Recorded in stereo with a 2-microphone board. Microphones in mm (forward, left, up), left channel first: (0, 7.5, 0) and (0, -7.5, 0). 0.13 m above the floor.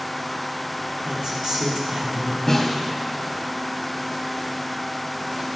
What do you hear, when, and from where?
1.1 s a woman speaking: 55° right (ahead or behind), 3 m
2.5 s a snare drum: 15° left (ahead or behind), 3 m